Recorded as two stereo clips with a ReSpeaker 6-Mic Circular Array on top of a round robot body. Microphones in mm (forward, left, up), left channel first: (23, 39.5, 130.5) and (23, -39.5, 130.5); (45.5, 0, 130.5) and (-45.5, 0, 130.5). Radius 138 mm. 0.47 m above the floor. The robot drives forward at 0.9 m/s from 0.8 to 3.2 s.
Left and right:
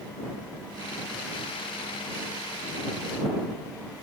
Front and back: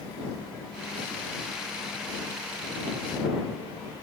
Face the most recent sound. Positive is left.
No sound to turn to.